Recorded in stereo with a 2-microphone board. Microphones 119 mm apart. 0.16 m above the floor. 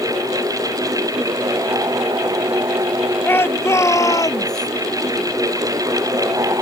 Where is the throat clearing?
No throat clearing in this recording.